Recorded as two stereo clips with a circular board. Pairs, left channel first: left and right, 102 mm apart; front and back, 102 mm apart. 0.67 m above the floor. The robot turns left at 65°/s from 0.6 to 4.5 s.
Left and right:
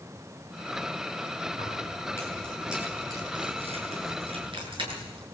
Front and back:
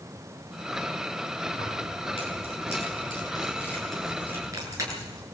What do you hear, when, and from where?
1.5 s keys jangling: 70° left, 8 m; by 5.2 s 125° right, 8 m